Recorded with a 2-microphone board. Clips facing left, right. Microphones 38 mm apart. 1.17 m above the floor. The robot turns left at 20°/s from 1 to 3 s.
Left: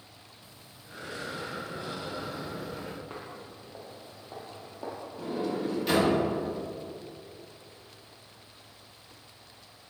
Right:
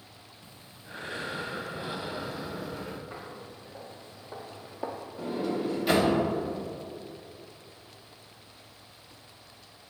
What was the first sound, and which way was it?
Breathing, 140° right.